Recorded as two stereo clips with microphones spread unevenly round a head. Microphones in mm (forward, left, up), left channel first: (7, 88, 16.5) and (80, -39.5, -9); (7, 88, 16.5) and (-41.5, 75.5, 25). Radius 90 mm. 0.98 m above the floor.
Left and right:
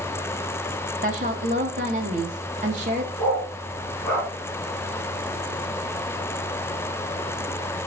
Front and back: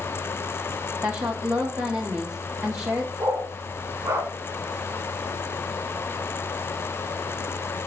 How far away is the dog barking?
About 3 m.